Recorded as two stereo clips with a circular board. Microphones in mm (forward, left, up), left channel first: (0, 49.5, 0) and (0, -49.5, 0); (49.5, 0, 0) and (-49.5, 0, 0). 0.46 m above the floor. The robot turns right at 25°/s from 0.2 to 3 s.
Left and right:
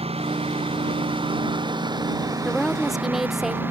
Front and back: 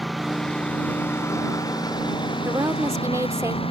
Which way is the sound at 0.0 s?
90° right.